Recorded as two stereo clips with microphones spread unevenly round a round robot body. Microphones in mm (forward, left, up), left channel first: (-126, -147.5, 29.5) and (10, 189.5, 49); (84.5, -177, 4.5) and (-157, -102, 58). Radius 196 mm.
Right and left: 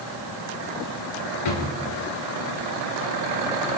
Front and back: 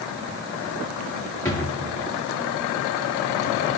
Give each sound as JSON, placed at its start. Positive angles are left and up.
{"t": 1.4, "sound": "a drawer", "azimuth_deg": -95, "distance_m": 4.0}